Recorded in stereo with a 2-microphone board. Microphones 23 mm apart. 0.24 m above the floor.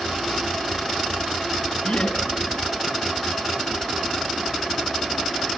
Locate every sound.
1.8 s laughter: 60° left (ahead or behind), 2.5 m